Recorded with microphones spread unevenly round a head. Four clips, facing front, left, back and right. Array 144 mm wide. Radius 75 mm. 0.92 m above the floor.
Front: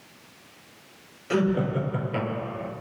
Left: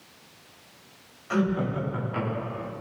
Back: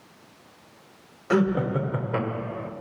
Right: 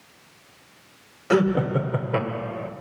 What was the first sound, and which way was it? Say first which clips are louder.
Laughter: right 6 dB, back 2 dB; 100° right.